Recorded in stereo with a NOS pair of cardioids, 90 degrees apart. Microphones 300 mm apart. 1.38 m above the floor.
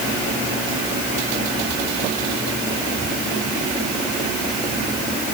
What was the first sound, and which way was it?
Only background noise.